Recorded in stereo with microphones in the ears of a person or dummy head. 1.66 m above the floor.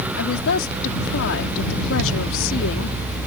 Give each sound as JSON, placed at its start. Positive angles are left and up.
{"t": 0.2, "sound": "a woman speaking", "side_deg": 75}